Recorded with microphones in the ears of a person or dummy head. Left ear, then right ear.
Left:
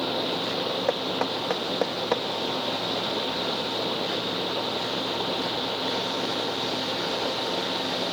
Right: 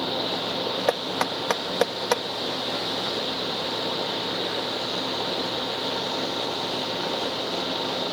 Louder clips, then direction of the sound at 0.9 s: Right 1 dB; 70° right (ahead or behind).